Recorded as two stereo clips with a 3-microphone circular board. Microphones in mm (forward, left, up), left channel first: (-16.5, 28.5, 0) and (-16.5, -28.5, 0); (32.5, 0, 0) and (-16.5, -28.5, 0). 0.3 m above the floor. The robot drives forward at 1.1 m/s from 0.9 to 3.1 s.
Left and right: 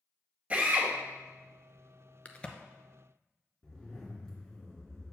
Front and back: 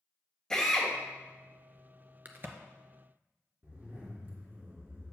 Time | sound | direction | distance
0.5 | a drill | 40° right | 1.6 m
2.2 | a crack | 155° left | 0.6 m
3.6 | a zipper | 165° left | 2 m